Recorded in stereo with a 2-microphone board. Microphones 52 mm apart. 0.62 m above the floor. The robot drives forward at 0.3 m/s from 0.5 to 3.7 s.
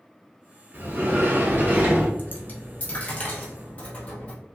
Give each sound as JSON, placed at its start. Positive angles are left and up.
{"t": 0.7, "sound": "a sliding door", "side_deg": -45, "distance_m": 0.7}
{"t": 2.2, "sound": "a dropped coin", "side_deg": 35, "distance_m": 0.8}